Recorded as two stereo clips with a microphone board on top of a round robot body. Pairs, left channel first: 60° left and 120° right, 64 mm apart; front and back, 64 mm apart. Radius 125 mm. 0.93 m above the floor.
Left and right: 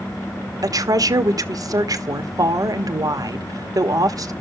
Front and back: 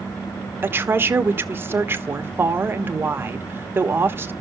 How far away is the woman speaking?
About 1.4 m.